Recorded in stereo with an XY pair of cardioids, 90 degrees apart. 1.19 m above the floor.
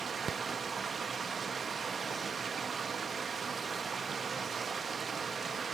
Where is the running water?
40° right, 1.2 m.